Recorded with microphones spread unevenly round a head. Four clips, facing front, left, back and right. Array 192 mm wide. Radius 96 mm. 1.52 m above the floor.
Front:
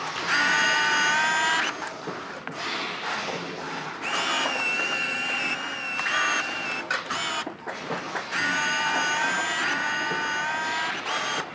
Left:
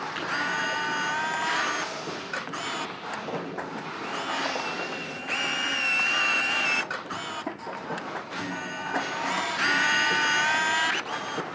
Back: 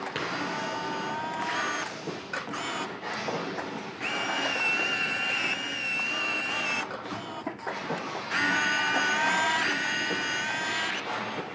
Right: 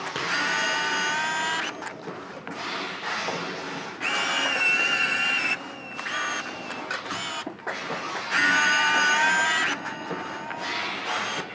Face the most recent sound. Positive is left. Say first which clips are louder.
# right 2 dB, even
turn(degrees=-135)